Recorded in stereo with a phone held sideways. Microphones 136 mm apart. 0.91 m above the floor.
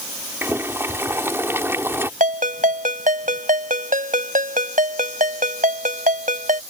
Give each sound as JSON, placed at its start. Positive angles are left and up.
{"t": 0.4, "sound": "boiling", "side_deg": -20}
{"t": 2.2, "sound": "a ringtone", "side_deg": -80}